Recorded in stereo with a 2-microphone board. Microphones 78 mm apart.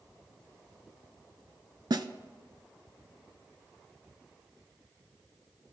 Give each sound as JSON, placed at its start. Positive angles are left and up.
{"t": 1.9, "sound": "a snare drum", "side_deg": -65, "distance_m": 0.6}